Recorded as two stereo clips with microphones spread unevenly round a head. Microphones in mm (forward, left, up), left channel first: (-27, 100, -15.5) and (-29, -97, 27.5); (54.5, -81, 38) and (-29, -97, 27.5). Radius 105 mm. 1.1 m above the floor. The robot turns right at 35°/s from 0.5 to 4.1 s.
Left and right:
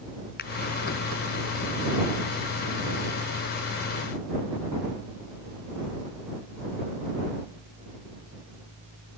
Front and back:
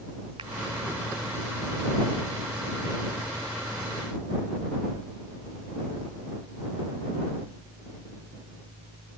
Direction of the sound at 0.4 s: 130° left.